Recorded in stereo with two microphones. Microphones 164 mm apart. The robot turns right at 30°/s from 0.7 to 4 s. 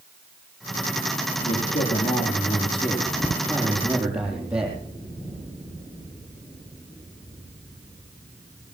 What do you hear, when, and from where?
1.4 s a man speaking: 105° left, 6.5 m; by 4.8 s 175° right, 6.5 m